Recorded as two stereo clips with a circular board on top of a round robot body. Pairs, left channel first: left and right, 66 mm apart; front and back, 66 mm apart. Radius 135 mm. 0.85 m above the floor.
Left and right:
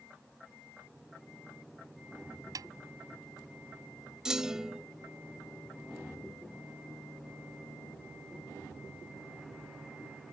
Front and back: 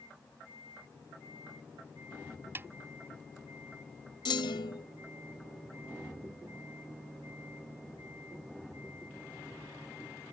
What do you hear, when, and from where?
2.5 s a snare drum: 120° right
4.2 s a clunk: 10° right